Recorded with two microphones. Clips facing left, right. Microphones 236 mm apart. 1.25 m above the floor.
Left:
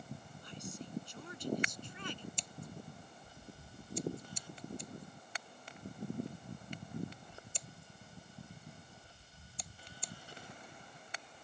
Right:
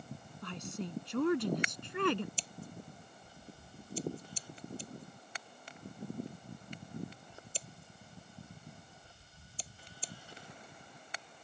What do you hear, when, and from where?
0.4 s a woman speaking: 90° right; by 2.3 s 85° right
2.4 s scissors: 35° right (ahead or behind)